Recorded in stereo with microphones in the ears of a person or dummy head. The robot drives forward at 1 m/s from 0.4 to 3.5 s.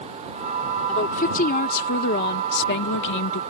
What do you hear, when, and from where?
0.9 s a woman speaking: 40° left (ahead or behind); by 3.4 s 70° left (ahead or behind)